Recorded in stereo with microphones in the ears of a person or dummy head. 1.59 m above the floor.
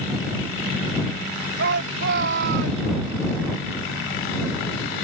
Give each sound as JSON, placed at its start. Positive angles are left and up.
{"t": 1.6, "sound": "a shout", "side_deg": -65}